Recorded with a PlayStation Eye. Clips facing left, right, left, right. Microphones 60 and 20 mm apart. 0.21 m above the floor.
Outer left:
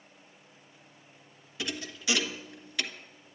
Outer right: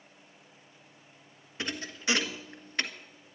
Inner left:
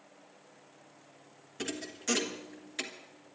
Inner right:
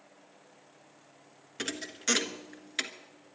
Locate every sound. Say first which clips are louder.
1.6 s a thud: outer right 1 dB, inner right 3 dB; 40° right (ahead or behind), 1.2 m